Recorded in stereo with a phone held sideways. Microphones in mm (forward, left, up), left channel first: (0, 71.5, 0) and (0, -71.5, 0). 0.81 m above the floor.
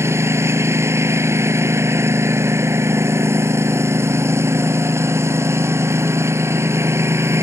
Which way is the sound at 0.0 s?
20° right (ahead or behind).